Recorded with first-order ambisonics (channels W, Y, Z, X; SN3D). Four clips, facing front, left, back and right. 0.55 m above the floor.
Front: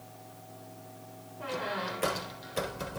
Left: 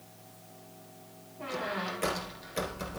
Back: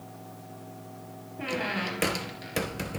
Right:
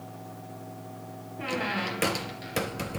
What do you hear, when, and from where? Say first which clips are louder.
1.4 s a squeak: right 4 dB, back 4 dB; 140° right, 3 m